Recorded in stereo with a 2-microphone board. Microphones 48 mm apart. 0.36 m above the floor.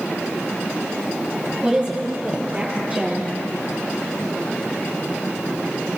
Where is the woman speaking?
25° right (ahead or behind), 7.5 m; by 3.3 s 30° right (ahead or behind), 6.5 m.